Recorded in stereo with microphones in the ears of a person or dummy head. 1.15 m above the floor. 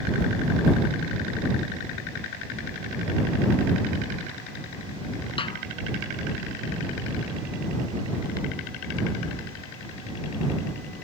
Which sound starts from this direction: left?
A snare drum, at 5.4 s.